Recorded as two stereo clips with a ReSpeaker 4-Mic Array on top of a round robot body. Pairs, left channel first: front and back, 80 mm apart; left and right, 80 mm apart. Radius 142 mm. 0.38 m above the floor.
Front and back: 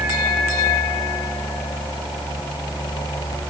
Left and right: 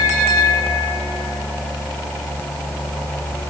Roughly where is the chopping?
I don't hear chopping.